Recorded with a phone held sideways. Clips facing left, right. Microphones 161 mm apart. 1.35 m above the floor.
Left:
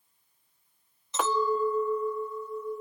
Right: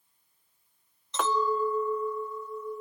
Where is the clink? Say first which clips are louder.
Left 1 dB; 5° left (ahead or behind), 1.4 m.